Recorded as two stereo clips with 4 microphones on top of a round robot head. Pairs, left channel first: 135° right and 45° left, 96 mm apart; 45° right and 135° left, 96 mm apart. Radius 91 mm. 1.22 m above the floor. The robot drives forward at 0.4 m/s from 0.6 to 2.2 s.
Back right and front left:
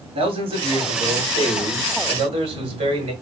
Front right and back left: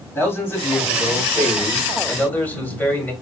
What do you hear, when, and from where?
0.1 s a man speaking: 25° left, 3 m; by 3.1 s 30° left, 2 m